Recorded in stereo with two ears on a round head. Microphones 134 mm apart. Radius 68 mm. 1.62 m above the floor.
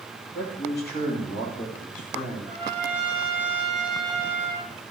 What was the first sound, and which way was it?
A man speaking, 85° left.